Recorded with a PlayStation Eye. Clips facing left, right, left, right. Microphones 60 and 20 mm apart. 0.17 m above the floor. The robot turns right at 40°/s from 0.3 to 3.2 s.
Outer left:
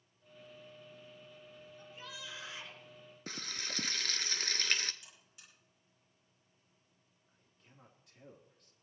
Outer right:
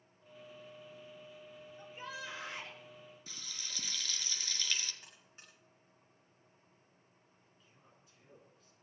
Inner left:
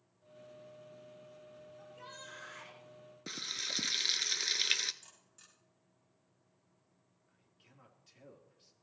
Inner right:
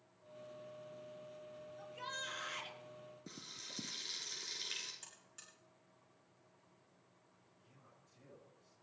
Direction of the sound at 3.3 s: 50° left (ahead or behind).